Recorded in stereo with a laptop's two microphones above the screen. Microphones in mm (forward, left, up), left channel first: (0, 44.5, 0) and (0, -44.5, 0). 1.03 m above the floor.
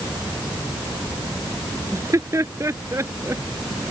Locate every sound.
1.9 s laughter: 35° right (ahead or behind); by 3.4 s 30° right (ahead or behind)